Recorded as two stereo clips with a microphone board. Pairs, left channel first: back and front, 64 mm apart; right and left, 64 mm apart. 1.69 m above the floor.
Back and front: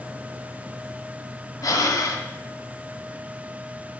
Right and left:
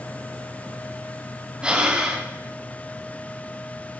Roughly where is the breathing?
Behind.